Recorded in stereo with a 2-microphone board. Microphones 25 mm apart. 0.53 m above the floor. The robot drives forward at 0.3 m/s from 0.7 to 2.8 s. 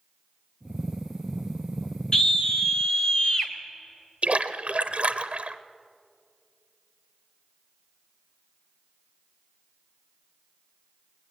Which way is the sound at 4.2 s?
55° right (ahead or behind).